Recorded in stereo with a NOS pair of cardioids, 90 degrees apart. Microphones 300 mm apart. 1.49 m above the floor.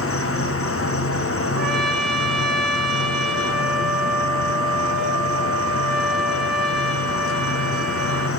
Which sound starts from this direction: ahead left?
An insect, at 0.0 s.